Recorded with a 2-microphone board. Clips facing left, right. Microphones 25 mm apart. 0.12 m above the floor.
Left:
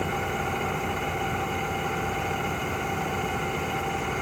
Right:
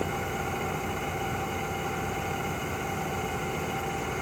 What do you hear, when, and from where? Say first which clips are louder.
0.0 s an engine running: left 3 dB; 15° left (ahead or behind)